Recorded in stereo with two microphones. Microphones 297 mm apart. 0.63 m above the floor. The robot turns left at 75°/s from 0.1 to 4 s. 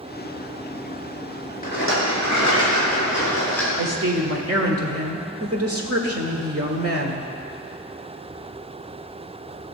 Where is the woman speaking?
65° right (ahead or behind), 1.5 m; by 7.3 s 50° right (ahead or behind), 1.5 m.